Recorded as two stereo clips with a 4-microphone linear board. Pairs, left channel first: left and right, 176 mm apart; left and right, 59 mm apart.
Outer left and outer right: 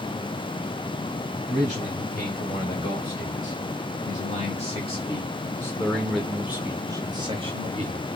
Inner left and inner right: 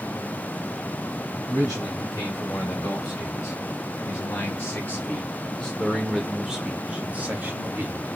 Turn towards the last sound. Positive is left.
turn(degrees=-40)  # may be behind; listen again after turning